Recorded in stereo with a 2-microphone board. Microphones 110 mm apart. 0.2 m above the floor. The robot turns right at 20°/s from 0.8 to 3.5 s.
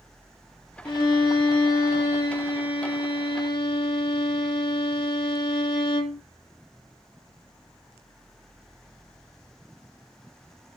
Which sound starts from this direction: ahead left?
A violin, at 0.8 s.